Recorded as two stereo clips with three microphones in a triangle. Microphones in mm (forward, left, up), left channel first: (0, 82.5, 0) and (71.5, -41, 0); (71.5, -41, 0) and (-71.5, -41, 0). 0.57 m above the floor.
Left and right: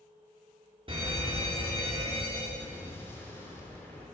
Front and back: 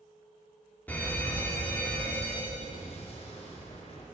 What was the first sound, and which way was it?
A fire alarm, 70° right.